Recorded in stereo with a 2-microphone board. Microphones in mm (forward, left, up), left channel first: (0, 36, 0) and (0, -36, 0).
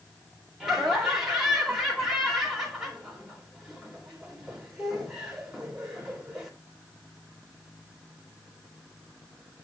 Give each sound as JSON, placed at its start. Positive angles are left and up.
{"t": 0.6, "sound": "laughter", "side_deg": -5, "distance_m": 3.0}